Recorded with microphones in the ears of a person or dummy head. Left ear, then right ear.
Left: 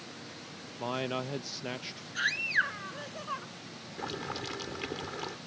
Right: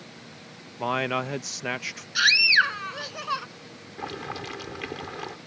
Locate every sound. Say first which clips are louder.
0.8 s a man speaking: right 8 dB; 50° right (ahead or behind)
2.1 s a scream: right 11 dB; 75° right (ahead or behind)
4.0 s boiling: right 3 dB; 20° right (ahead or behind)